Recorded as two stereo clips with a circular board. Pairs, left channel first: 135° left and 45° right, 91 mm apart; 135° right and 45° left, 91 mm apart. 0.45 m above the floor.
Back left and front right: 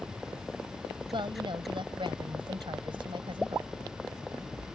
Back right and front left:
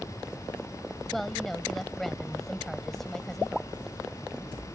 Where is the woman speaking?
50° right.